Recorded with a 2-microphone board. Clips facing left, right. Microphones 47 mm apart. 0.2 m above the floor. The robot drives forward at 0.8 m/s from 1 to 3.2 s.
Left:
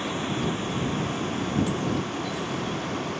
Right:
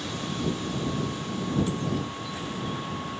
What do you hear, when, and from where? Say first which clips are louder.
0.0 s a vehicle: left 3 dB; 35° left (ahead or behind); by 3.2 s 60° left (ahead or behind)